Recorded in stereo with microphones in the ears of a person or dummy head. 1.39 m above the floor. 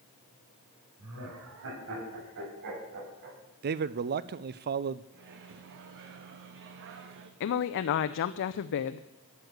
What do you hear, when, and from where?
1.0 s laughter: 75° right (ahead or behind), 7 m; by 3.4 s 50° right (ahead or behind), 6.5 m
3.6 s a man speaking: 45° right (ahead or behind), 0.5 m
5.1 s a microwave: 60° right (ahead or behind), 1.5 m
7.4 s a woman speaking: 60° left (ahead or behind), 0.5 m